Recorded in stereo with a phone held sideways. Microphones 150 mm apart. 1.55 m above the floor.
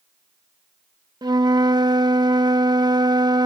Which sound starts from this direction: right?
A flute, at 1.2 s.